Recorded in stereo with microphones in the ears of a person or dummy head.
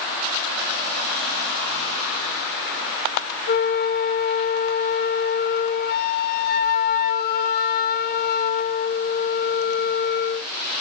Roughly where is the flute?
Left.